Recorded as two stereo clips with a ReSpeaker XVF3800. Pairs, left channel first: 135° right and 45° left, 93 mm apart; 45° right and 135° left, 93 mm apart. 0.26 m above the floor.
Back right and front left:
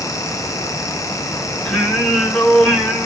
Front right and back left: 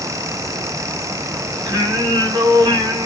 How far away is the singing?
About 2 m.